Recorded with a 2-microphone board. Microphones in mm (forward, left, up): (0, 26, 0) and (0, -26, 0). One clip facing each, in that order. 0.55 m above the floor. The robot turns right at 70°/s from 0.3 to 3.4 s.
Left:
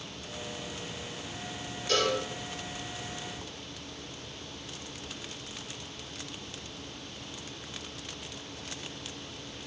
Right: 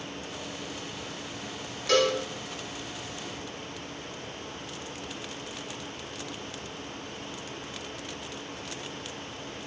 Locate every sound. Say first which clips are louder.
1.9 s a cowbell: right 4 dB; 85° right, 1.4 m; by 2.2 s 65° right (ahead or behind), 1.4 m